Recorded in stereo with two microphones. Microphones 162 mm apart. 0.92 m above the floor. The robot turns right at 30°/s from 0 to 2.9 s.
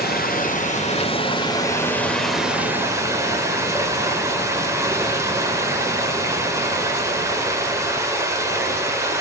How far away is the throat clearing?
No throat clearing in this recording.